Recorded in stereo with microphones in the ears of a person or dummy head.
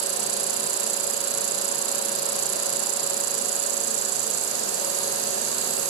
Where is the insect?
75° right (ahead or behind), 1.3 m.